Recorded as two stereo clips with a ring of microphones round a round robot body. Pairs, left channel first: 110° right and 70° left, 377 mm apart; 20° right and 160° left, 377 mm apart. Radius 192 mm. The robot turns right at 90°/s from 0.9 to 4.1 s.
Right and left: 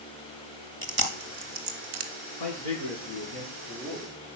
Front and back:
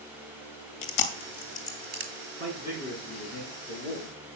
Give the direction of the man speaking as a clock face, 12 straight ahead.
5 o'clock.